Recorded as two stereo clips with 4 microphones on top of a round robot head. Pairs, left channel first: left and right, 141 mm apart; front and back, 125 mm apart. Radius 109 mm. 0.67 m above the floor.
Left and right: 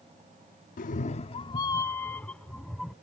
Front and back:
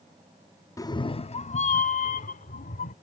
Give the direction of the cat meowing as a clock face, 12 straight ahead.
10 o'clock.